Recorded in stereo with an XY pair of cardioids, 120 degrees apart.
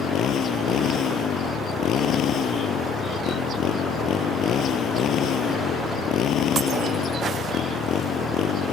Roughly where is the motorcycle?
Ahead left.